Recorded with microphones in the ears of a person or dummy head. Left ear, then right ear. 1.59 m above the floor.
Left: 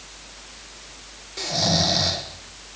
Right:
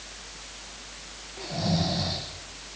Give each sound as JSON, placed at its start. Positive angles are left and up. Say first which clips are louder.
{"t": 1.4, "sound": "snoring", "louder": "left 9 dB", "side_deg": 70, "distance_m": 1.3}